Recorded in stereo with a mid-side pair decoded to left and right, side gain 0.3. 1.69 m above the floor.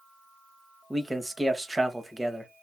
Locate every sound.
0.9 s a man speaking: 20° right, 1.5 m